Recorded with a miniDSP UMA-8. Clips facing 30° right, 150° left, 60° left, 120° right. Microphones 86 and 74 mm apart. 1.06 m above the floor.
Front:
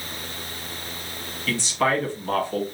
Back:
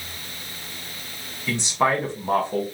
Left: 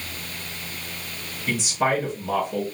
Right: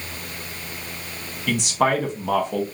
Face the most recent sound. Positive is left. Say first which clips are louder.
# back 1 dB, right 3 dB
turn(degrees=-140)